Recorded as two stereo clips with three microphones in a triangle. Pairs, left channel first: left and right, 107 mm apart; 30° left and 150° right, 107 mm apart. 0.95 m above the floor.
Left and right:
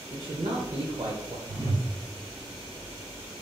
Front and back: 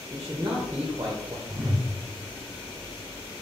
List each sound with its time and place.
0.1 s a man speaking: 105° right, 0.8 m
1.5 s a whoosh: 110° right, 1.1 m